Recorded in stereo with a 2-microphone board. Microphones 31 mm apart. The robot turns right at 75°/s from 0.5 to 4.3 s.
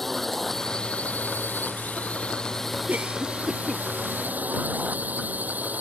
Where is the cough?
60° right (ahead or behind); by 3.8 s 5° left (ahead or behind).